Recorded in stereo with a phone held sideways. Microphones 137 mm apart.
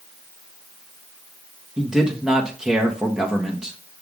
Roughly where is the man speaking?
Centre.